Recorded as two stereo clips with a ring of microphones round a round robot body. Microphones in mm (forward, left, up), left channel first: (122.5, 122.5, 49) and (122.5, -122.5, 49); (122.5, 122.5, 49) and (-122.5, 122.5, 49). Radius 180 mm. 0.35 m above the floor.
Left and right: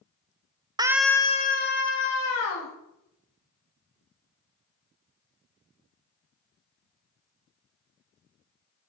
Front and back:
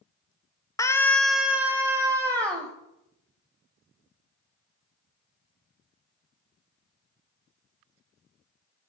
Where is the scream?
50° right, 0.8 m; by 2.7 s 105° left, 1.9 m.